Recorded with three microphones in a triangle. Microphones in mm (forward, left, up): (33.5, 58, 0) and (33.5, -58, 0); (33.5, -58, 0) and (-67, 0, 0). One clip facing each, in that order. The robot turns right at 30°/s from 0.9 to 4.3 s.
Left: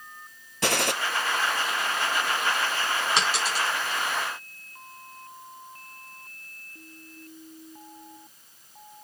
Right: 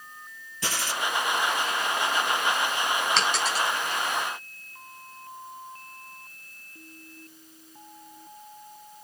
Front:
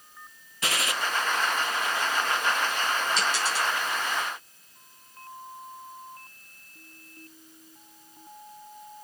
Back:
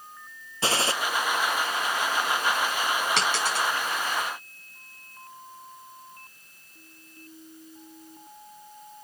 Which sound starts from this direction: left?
A gunshot, at 0.6 s.